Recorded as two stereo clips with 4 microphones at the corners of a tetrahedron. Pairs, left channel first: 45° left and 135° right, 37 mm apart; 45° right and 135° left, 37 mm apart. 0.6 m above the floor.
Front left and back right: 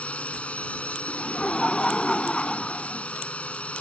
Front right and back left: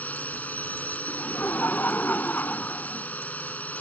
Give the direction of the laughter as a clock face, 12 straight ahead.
1 o'clock.